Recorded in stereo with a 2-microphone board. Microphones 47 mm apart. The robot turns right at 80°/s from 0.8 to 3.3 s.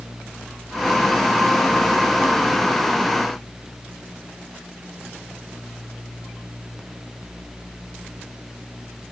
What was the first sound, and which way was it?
Only background noise.